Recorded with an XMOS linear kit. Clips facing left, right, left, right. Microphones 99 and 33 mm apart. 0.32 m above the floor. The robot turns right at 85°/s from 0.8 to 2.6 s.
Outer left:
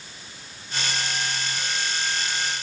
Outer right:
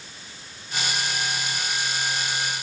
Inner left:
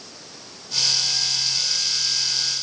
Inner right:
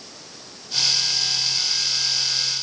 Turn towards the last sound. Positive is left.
No sound to turn to.